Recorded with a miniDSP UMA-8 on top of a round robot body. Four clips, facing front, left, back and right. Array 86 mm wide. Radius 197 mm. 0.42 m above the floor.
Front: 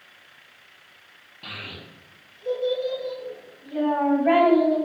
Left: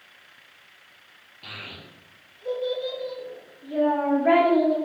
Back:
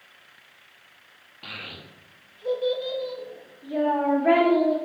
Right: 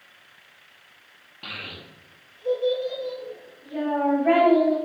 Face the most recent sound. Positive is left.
turn(degrees=150)